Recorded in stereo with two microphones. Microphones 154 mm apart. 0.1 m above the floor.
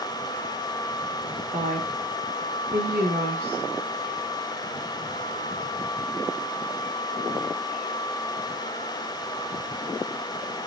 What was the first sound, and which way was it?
A woman speaking, 70° right (ahead or behind).